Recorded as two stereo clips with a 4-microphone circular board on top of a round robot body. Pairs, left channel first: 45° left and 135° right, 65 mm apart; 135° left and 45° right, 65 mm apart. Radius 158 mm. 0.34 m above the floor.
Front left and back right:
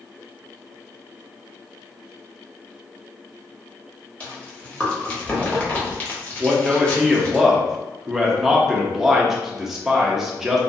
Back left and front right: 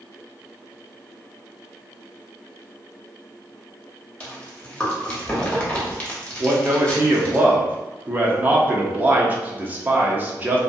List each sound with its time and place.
4.2 s chewing: 85° left, 1.3 m
6.4 s a man speaking: 55° right, 0.8 m